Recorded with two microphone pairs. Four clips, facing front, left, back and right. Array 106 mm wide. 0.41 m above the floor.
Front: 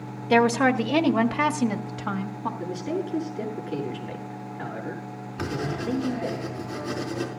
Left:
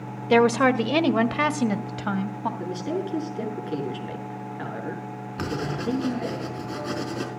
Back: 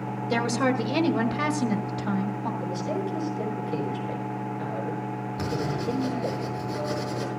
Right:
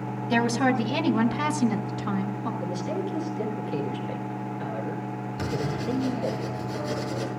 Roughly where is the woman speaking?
Ahead left.